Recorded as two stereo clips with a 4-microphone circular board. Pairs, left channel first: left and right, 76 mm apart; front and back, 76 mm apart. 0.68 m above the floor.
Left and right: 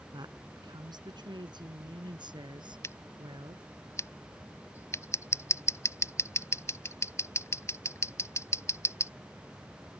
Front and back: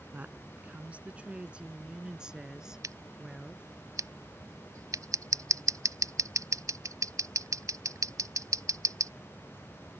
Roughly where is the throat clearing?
I don't hear throat clearing.